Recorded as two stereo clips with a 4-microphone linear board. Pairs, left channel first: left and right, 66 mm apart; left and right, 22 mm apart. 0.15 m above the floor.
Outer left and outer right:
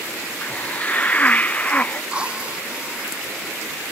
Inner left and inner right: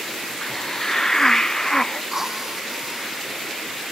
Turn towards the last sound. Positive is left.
turn(degrees=-20)  # may be behind; listen again after turning